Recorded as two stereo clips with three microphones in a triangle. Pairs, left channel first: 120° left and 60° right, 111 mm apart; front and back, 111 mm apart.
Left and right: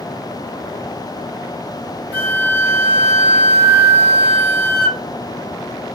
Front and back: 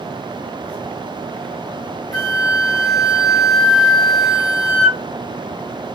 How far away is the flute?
About 1.6 m.